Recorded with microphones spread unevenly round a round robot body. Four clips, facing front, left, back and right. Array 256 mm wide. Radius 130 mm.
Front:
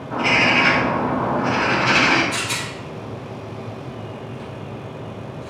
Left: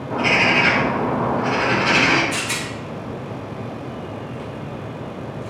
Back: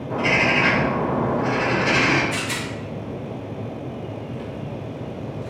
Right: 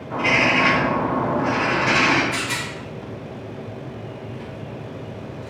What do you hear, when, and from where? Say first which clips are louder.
0.1 s a bird: left 1 dB, front 2 dB; 140° left, 2.0 m
2.3 s a rattle: left 1 dB, even; 130° left, 1.7 m